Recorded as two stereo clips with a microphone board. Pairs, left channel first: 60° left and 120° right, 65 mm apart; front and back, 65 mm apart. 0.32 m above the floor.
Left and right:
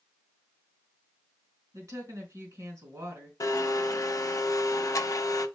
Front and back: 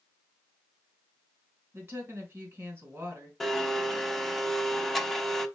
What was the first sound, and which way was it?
A woman speaking, 130° right.